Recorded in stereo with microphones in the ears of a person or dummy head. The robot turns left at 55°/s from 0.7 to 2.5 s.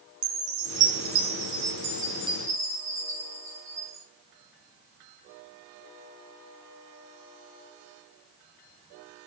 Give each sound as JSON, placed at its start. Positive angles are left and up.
{"t": 0.2, "sound": "a chime", "azimuth_deg": -65, "distance_m": 1.2}